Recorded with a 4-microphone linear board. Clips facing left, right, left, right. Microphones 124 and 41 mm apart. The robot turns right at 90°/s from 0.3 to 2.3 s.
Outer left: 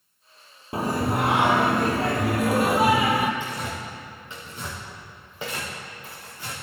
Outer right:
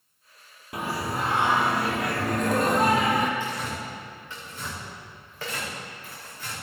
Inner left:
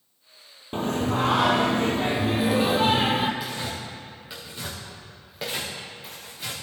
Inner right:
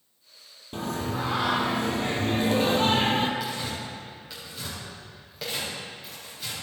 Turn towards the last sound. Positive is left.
turn(degrees=15)  # may be behind; listen again after turning